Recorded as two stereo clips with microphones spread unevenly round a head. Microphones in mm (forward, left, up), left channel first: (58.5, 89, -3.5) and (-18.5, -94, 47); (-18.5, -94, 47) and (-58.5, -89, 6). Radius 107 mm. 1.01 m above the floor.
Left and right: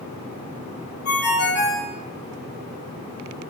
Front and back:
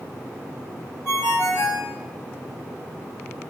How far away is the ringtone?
About 2 m.